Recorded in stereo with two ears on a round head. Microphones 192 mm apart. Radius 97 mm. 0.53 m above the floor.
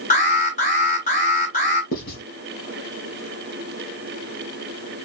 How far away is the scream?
No scream in this recording.